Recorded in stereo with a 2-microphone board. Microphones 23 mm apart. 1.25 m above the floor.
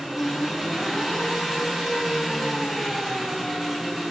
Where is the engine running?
10° right (ahead or behind), 4 m.